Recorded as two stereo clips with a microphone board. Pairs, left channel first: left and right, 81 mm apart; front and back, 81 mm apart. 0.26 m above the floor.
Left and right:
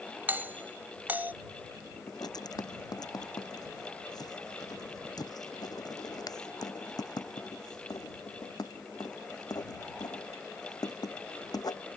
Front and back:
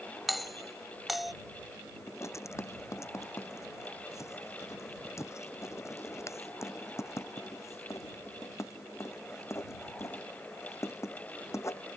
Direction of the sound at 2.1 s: 55° left.